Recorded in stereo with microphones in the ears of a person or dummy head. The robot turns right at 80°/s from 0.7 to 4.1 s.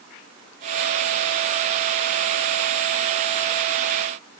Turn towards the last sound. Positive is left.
No sound to turn to.